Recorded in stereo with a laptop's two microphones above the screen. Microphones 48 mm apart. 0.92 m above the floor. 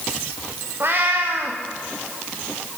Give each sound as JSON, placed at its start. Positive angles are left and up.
{"t": 0.8, "sound": "a cat meowing", "side_deg": -50, "distance_m": 5.0}